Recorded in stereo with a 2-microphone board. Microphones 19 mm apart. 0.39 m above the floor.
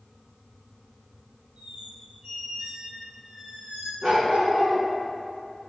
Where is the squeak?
85° right, 2.5 m.